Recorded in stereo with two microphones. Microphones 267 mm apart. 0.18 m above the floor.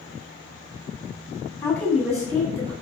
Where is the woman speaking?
15° left (ahead or behind), 1.3 m; by 2.7 s 35° right (ahead or behind), 1.5 m.